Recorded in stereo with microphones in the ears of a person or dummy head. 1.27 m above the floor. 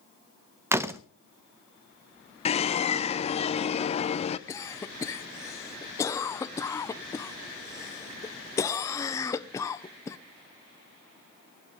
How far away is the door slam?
About 0.7 m.